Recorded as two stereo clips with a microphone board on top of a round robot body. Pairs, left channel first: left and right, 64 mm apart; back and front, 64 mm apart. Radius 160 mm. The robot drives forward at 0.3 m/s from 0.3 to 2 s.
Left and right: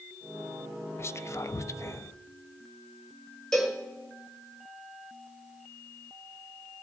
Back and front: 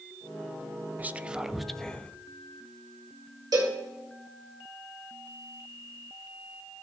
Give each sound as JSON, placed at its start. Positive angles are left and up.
{"t": 1.0, "sound": "whispering", "azimuth_deg": 55, "distance_m": 0.5}
{"t": 3.5, "sound": "a cowbell", "azimuth_deg": 10, "distance_m": 1.7}